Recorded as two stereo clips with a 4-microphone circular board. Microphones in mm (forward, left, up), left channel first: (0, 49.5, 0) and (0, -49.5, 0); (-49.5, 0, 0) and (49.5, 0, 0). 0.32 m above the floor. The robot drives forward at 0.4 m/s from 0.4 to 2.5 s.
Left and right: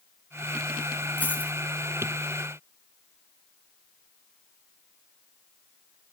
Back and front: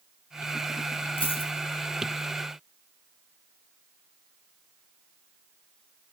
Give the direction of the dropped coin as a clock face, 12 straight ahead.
7 o'clock.